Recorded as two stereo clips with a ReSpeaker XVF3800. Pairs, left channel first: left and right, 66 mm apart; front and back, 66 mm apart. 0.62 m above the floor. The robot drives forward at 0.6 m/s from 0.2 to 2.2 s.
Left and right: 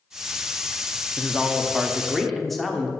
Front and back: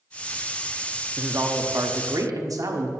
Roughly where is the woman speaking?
Behind.